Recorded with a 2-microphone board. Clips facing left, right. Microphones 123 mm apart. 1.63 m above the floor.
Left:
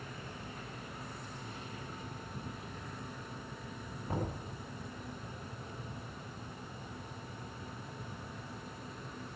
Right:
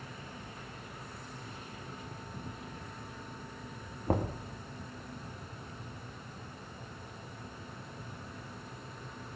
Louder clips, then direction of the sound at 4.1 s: Right 6 dB; 55° right (ahead or behind).